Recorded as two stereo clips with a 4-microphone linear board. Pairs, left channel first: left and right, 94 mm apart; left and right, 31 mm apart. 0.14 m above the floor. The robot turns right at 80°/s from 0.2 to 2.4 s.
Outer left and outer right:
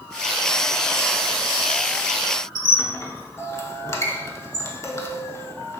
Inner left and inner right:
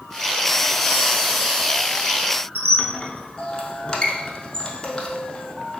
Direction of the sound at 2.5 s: 30° left (ahead or behind).